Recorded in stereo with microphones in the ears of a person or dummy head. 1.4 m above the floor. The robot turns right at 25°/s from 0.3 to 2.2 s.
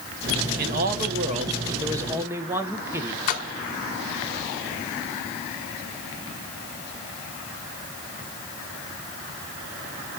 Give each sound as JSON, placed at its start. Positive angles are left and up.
{"t": 0.6, "sound": "a man speaking", "azimuth_deg": -55, "distance_m": 1.1}
{"t": 3.3, "sound": "a splash", "side_deg": 45, "distance_m": 1.6}